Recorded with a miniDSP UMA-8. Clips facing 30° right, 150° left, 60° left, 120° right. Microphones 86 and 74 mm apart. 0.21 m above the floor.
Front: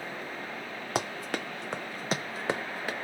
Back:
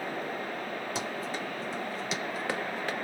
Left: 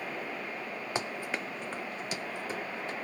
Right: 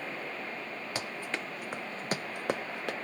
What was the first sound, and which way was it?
Running footsteps, 5° right.